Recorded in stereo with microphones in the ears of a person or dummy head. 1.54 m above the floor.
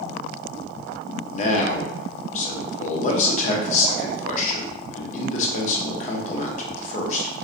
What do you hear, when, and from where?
1.3 s a man speaking: 45° left (ahead or behind), 0.6 m